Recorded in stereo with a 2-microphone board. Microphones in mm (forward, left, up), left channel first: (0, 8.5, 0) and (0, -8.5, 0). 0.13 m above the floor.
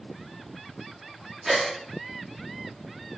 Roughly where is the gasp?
Right.